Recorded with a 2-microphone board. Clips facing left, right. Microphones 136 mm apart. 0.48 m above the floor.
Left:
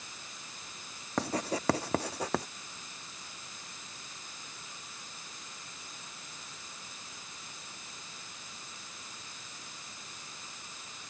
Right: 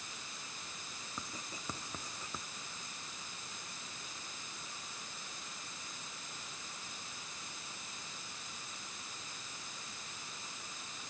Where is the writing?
75° left (ahead or behind).